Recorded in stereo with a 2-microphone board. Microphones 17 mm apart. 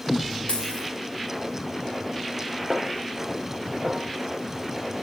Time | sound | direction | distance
0.5 | a dropped coin | 60° left (ahead or behind) | 3.5 m
2.7 | a snare drum | 45° right (ahead or behind) | 1.1 m